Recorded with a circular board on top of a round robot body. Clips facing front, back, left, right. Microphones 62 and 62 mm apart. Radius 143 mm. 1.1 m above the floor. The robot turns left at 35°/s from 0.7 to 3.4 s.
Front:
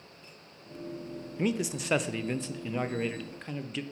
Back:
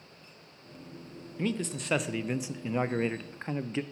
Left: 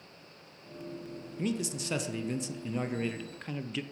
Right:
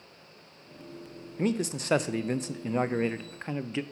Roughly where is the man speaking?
Right.